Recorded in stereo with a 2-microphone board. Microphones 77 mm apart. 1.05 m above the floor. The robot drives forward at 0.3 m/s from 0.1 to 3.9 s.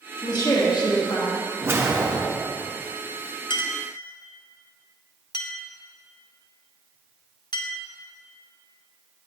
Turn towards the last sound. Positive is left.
turn(degrees=60)  # may be behind; listen again after turning